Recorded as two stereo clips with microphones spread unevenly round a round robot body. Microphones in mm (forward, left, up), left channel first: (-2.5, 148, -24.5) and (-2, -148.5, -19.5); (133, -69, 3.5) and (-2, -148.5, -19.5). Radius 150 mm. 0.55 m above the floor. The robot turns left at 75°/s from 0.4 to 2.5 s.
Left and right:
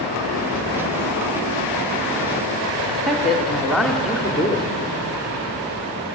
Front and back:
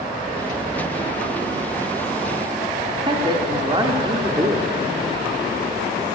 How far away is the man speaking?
About 0.9 m.